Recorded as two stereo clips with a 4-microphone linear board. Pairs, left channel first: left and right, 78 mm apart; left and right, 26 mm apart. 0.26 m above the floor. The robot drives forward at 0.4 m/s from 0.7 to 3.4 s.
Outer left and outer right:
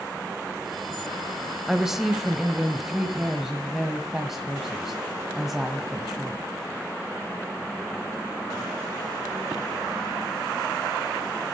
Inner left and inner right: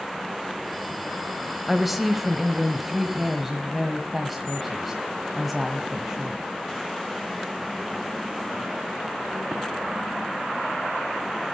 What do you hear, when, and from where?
1.7 s a woman speaking: 5° right (ahead or behind), 1.0 m